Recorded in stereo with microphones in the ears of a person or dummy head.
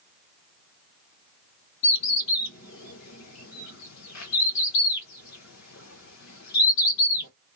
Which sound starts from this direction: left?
A bird, at 1.8 s.